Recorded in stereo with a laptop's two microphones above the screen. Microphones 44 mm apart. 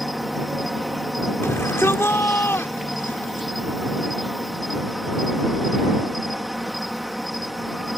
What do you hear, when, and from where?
0.0 s an insect: centre (ahead or behind)
1.4 s a shout: 80° left